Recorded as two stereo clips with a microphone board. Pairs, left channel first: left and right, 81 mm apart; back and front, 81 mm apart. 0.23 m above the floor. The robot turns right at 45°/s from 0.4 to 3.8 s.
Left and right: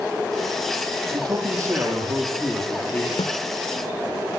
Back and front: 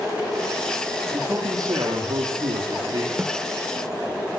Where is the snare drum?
75° left, 4.5 m; by 3.3 s 80° left, 4.5 m.